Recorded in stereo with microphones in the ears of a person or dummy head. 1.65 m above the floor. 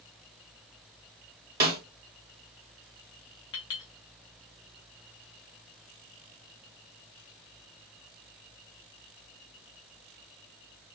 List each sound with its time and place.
1.6 s a snare drum: 20° right (ahead or behind), 0.7 m
3.5 s a clink: 20° left (ahead or behind), 0.6 m